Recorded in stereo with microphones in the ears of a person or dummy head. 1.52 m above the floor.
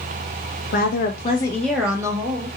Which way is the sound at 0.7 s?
60° left (ahead or behind).